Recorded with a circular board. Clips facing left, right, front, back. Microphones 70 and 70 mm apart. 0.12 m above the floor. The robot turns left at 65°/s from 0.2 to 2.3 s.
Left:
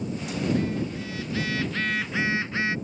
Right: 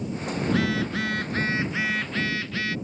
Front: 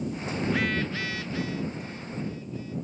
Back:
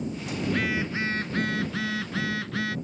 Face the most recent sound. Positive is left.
turn(degrees=160)